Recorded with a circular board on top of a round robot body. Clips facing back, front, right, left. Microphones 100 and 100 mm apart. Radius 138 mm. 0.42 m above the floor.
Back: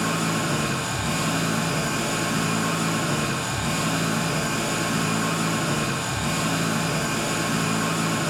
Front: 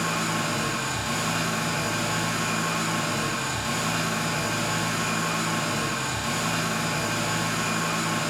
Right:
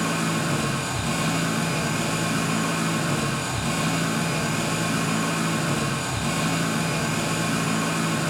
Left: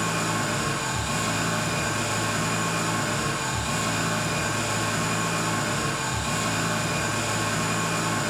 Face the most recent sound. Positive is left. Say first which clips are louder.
# back 2 dB, right 2 dB
turn(degrees=-130)